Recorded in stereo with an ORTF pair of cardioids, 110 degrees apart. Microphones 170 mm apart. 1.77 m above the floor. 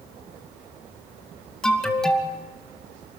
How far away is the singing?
I don't hear singing.